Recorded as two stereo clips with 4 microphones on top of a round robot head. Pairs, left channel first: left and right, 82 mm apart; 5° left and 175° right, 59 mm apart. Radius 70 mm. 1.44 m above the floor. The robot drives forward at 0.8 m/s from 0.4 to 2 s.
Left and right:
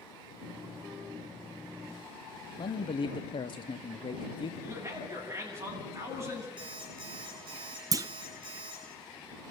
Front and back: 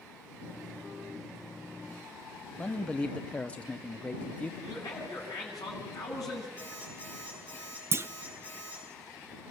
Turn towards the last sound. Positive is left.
turn(degrees=-135)